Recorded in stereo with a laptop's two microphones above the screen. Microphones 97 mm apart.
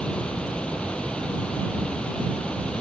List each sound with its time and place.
0.0 s running water: 10° left (ahead or behind)